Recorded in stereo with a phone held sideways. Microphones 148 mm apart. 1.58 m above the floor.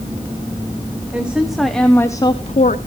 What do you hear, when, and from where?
1.1 s a woman speaking: 10° right (ahead or behind), 1.4 m; by 2.8 s 70° left (ahead or behind), 0.6 m